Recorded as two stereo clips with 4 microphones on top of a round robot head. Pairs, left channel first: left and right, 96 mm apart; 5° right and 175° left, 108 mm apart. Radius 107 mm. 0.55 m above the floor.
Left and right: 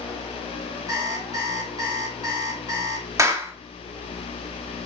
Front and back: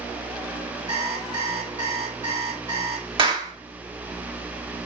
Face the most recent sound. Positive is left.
turn(degrees=-145)